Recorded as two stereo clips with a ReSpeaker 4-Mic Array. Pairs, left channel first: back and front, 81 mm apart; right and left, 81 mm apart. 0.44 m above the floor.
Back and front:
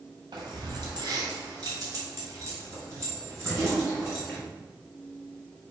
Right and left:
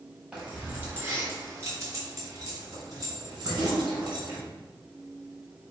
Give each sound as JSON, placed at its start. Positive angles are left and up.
{"t": 0.3, "sound": "keys jangling", "azimuth_deg": 15, "distance_m": 1.9}